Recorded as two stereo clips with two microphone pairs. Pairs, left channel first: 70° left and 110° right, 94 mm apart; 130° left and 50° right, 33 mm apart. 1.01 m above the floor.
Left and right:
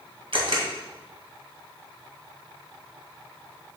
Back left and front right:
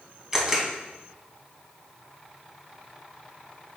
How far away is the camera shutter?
About 2 m.